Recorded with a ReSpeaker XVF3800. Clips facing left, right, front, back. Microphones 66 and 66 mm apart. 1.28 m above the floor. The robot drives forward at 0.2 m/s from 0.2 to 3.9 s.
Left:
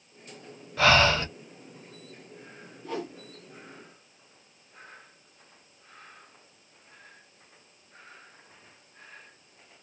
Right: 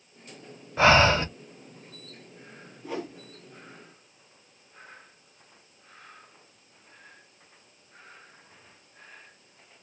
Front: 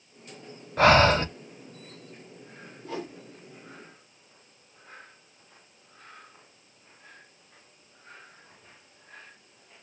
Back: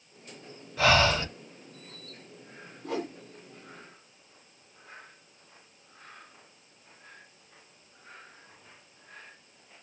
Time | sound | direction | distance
0.8 | breathing | 30° right | 0.7 m
2.8 | a whoosh | 170° right | 1.5 m